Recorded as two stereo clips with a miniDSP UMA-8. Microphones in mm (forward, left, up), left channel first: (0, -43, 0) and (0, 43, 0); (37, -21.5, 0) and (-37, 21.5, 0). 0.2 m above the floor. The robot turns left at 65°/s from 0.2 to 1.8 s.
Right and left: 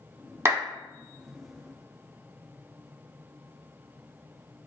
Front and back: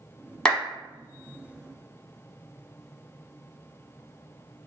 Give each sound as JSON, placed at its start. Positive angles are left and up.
{"t": 0.5, "sound": "a clap", "azimuth_deg": 45, "distance_m": 1.0}